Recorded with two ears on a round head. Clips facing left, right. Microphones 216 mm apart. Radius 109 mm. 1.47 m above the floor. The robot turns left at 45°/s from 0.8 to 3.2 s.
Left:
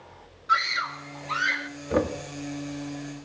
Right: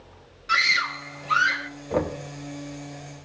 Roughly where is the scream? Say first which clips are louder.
Even; behind right.